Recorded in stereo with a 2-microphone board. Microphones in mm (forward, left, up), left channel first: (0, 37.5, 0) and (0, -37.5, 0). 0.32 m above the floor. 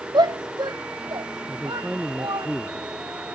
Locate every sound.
0.1 s a shout: 75° right (ahead or behind); by 2.5 s 80° right
1.5 s a man speaking: 10° right (ahead or behind)